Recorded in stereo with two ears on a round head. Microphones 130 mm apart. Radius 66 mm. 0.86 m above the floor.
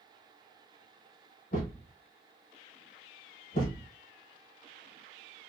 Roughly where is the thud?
Left.